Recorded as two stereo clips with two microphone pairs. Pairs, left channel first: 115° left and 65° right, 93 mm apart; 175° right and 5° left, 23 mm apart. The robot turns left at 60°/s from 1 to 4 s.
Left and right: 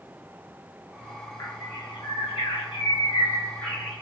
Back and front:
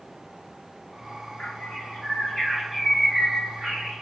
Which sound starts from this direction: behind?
A bird, at 1.4 s.